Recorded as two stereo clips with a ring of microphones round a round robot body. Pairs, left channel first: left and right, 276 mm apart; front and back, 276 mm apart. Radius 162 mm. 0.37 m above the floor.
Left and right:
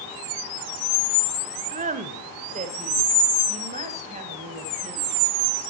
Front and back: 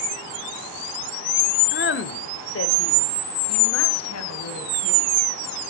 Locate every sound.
1.7 s a woman speaking: 35° right, 1.5 m; by 5.2 s 20° right, 3.5 m